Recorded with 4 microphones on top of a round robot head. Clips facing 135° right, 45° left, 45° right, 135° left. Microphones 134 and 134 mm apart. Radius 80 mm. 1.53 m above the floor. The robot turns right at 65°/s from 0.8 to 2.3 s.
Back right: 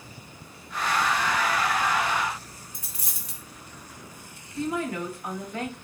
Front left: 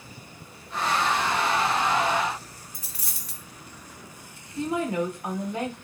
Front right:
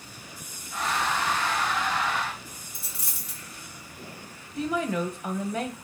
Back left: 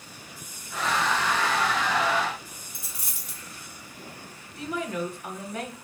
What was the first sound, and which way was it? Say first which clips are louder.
A dropped coin: even, even; straight behind.